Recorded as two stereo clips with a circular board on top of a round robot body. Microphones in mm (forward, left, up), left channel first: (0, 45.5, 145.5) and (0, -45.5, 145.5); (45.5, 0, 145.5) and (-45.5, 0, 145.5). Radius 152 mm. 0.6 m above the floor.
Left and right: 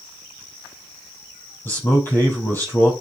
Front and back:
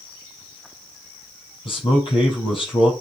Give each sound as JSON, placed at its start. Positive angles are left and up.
{"t": 1.6, "sound": "a man speaking", "azimuth_deg": 25, "distance_m": 5.0}